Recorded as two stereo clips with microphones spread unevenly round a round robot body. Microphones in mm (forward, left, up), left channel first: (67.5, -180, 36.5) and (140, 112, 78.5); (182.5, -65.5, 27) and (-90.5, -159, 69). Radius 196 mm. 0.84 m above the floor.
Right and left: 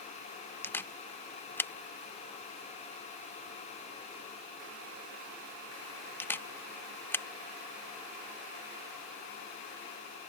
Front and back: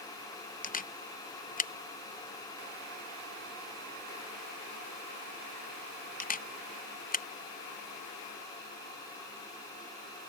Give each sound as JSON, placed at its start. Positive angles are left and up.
{"t": 0.6, "sound": "a camera shutter", "azimuth_deg": -30}